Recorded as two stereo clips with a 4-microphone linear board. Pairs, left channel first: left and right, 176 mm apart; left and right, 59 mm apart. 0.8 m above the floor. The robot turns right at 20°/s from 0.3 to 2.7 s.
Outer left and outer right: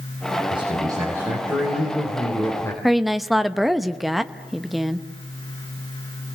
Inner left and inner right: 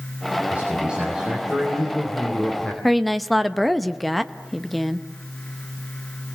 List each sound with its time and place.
0.5 s a man speaking: 30° right, 3.5 m; by 2.7 s 15° left, 3.5 m
2.8 s a woman speaking: centre (ahead or behind), 0.8 m